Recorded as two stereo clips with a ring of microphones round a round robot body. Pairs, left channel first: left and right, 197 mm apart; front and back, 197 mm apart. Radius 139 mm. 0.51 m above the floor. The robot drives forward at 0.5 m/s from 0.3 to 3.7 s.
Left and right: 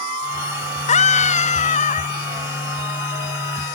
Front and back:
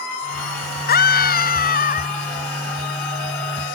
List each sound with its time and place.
0.9 s a scream: 35° left; by 2.2 s 40° left